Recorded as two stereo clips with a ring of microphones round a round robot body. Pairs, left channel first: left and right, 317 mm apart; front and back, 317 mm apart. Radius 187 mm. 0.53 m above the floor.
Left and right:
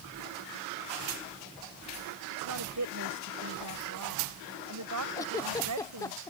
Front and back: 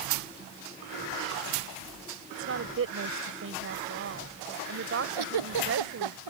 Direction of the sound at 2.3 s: 130° right.